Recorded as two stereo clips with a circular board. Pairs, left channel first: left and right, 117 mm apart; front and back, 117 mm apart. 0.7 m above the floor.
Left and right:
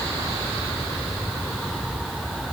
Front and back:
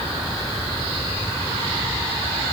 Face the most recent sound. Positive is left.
No sound to turn to.